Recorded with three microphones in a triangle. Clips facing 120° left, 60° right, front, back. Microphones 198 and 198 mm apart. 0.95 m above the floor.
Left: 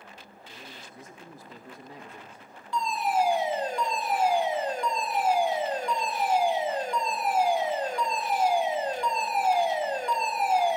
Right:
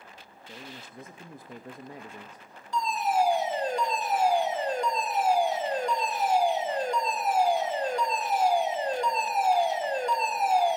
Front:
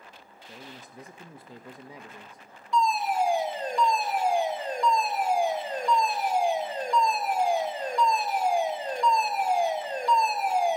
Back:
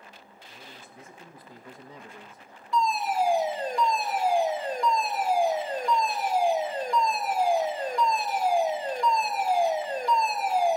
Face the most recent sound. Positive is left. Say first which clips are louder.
# even, front 1 dB
turn(degrees=-90)